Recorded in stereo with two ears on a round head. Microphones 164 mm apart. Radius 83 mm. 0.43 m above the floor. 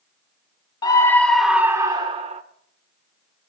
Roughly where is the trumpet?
No trumpet in this recording.